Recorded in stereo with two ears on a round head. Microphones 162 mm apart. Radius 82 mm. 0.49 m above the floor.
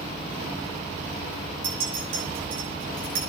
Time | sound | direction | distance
1.6 | a clink | 85° right | 6.5 m